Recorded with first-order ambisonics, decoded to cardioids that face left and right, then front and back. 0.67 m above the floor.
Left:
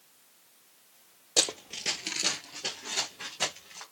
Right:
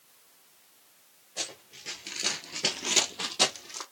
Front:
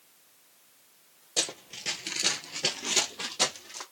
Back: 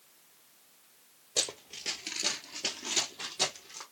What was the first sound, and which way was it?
Running footsteps, 90° left.